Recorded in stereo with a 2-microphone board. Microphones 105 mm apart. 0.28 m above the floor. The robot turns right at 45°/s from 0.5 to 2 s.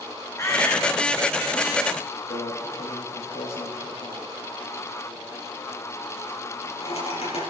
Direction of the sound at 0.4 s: 25° left (ahead or behind).